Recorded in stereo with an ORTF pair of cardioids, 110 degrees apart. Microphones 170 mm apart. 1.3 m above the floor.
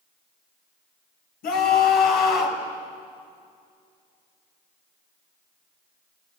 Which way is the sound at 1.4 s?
65° left.